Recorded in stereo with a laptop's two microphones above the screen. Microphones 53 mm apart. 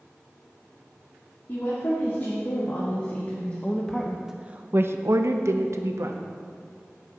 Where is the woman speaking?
45° left (ahead or behind), 2.5 m; by 6.2 s 70° right (ahead or behind), 1.5 m.